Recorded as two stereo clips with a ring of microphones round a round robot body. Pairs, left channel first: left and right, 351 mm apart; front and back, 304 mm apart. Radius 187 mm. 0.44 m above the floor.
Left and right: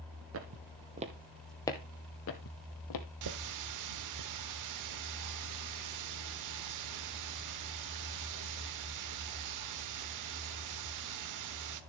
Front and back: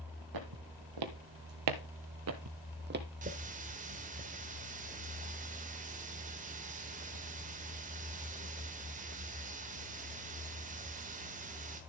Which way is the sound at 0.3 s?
145° right.